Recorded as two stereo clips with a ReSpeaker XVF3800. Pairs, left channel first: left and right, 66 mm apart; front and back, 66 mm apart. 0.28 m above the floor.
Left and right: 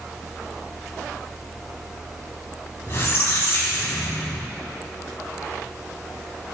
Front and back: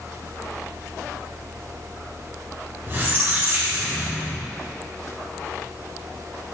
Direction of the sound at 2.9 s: 135° left.